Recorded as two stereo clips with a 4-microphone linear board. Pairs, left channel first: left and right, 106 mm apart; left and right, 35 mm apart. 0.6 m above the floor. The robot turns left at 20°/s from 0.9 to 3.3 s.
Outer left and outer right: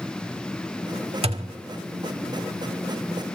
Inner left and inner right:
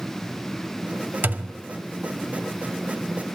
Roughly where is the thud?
Right.